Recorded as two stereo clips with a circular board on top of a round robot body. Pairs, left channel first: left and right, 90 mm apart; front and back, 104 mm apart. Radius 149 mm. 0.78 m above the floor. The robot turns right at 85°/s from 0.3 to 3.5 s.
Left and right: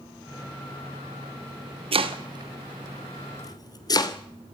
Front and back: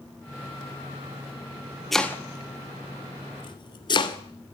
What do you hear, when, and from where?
1.9 s chopping: 90° right, 2.5 m; by 4.2 s 45° left, 2.5 m